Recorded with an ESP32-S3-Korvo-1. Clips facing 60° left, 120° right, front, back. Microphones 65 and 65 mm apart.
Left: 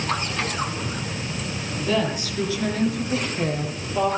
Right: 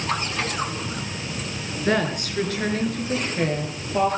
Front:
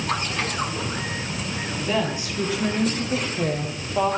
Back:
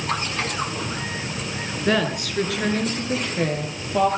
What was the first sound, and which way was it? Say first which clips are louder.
A woman speaking: right 1 dB, back 4 dB; 155° right.